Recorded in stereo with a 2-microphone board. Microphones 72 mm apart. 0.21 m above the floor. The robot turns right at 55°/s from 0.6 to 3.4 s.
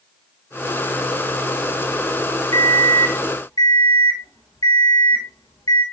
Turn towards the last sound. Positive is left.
turn(degrees=110)